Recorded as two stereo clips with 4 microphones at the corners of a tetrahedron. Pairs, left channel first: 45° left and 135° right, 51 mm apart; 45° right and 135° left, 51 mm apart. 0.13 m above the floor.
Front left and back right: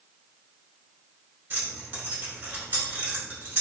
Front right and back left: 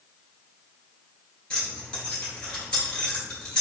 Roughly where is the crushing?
I don't hear crushing.